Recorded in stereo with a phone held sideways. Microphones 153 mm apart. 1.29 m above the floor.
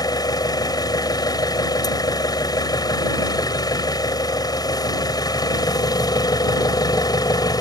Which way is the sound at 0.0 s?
25° left (ahead or behind).